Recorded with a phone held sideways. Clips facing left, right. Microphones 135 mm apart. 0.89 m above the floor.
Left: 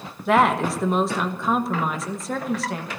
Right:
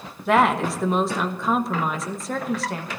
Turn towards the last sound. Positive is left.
turn(degrees=0)  # may be behind; listen again after turning